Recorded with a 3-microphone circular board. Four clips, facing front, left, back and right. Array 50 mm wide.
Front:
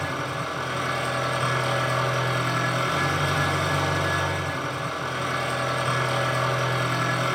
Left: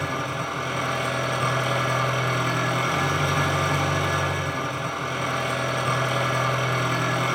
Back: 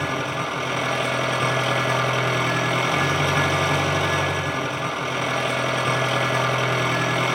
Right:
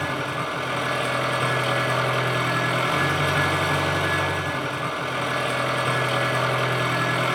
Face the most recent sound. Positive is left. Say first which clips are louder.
# right 1 dB, back 3 dB
turn(degrees=-165)